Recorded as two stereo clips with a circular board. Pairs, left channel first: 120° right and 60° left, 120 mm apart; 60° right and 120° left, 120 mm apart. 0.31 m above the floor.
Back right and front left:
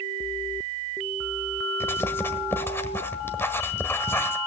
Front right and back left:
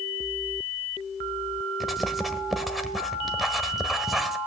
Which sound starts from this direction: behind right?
Writing, at 1.8 s.